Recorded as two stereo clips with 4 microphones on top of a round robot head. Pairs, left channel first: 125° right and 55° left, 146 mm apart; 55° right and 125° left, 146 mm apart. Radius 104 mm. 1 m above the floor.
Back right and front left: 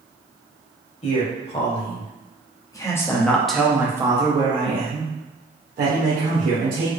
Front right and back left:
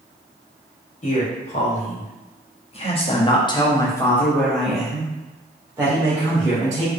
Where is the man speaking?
90° right, 1.6 m; by 6.9 s 60° left, 1.8 m.